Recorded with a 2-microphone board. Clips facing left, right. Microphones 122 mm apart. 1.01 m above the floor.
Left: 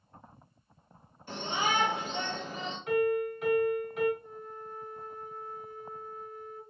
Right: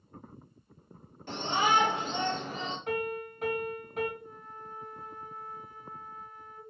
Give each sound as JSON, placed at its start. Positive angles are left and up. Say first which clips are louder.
{"t": 1.3, "sound": "a shout", "louder": "right 4 dB", "side_deg": -80, "distance_m": 2.5}
{"t": 2.9, "sound": "a piano", "louder": "left 8 dB", "side_deg": -45, "distance_m": 2.5}
{"t": 4.2, "sound": "a flute", "louder": "left 3 dB", "side_deg": -70, "distance_m": 2.5}